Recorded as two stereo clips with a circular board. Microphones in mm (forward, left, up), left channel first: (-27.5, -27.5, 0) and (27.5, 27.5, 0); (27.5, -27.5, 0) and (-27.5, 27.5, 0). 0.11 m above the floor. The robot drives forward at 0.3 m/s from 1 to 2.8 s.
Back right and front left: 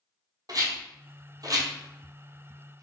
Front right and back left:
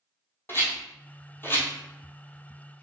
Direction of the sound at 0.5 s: 10° left.